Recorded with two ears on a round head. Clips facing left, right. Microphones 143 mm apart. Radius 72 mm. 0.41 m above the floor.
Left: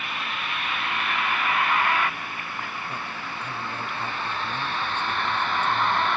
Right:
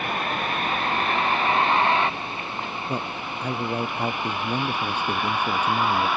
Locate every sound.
0.0 s a vehicle: 40° right (ahead or behind); by 6.2 s 5° right (ahead or behind)
2.9 s a man speaking: 35° right (ahead or behind)